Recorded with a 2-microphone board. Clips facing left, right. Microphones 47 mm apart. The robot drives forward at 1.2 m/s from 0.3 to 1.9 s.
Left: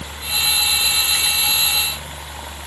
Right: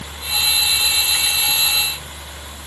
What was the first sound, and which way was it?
Only background noise.